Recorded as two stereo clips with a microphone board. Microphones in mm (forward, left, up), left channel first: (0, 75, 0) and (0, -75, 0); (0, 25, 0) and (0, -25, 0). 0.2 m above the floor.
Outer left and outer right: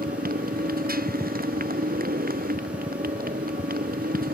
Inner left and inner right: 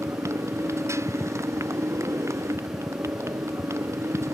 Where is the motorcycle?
75° right (ahead or behind).